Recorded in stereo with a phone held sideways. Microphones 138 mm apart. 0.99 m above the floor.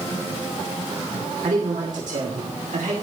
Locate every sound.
1.4 s a man speaking: 75° right (ahead or behind), 2.5 m